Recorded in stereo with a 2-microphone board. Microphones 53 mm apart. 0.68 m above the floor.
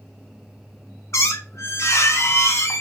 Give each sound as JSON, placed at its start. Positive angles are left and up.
{"t": 1.1, "sound": "a squeak", "side_deg": 60, "distance_m": 0.6}